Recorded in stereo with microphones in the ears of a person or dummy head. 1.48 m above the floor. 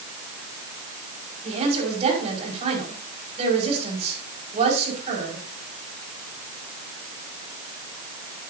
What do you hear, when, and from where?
1.4 s a woman speaking: 35° right (ahead or behind), 5 m